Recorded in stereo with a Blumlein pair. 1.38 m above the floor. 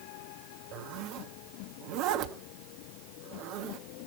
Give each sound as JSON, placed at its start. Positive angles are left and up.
{"t": 0.7, "sound": "a zipper", "azimuth_deg": -40, "distance_m": 1.5}